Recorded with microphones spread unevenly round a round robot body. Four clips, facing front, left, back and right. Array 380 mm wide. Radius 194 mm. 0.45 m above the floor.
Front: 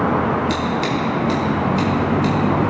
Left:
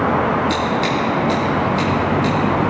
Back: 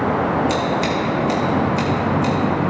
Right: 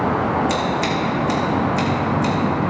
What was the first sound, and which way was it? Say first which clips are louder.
Scissors: left 2 dB, back 1 dB; 35° right.